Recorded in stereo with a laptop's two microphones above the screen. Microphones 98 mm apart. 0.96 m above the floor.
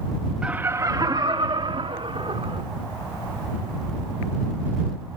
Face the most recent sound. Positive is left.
turn(degrees=-75)  # may be behind; listen again after turning